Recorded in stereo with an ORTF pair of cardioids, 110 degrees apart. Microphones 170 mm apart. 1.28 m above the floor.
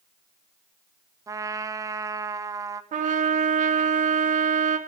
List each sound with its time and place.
1.3 s a trumpet: 20° right, 0.6 m
2.9 s a trumpet: 45° right, 1.5 m